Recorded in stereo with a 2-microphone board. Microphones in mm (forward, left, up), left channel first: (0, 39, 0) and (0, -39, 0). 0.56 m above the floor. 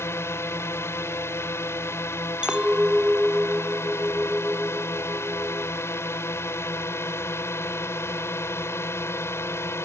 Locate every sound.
0.0 s a drone: 30° left (ahead or behind)
2.4 s a clink: 10° right (ahead or behind)